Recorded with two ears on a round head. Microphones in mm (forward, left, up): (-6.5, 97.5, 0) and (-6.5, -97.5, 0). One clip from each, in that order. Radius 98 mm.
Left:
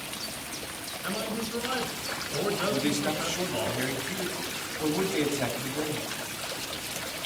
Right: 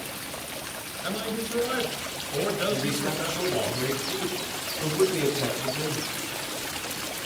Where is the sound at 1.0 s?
5° left (ahead or behind), 4 m.